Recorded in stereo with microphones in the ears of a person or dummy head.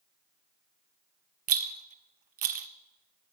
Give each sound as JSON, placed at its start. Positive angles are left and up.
{"t": 1.5, "sound": "a rattle", "side_deg": -45, "distance_m": 0.6}